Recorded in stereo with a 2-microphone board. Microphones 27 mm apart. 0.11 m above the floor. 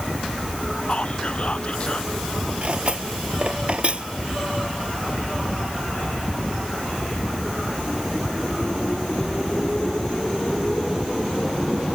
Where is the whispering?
45° left (ahead or behind).